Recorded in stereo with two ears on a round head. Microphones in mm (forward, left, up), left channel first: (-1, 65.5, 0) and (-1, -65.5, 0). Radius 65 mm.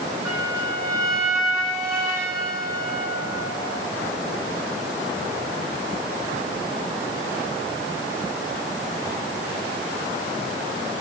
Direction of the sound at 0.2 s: 20° right (ahead or behind).